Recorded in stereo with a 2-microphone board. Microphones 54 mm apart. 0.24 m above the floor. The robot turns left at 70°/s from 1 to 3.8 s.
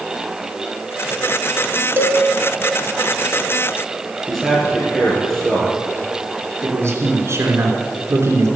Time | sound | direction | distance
2.0 | a cowbell | 40° right (ahead or behind) | 1.3 m
4.3 | a man speaking | 5° left (ahead or behind) | 5 m
6.6 | a man speaking | 50° right (ahead or behind) | 3 m